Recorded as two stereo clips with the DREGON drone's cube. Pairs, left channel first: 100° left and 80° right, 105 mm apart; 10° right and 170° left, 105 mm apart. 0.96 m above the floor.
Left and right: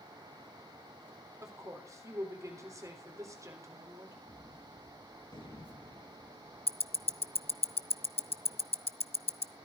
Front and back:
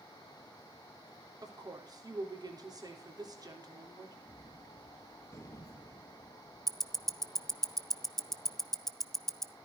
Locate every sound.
1.4 s a woman speaking: 140° right, 3 m
4.2 s a gunshot: 55° left, 4 m
6.7 s ticking: 75° left, 0.6 m